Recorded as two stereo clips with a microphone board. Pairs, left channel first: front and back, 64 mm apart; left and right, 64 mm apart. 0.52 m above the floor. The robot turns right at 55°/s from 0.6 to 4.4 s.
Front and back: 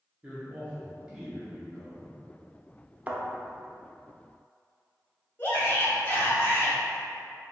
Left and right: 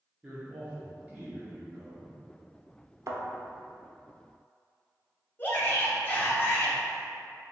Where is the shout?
45° left, 0.9 m.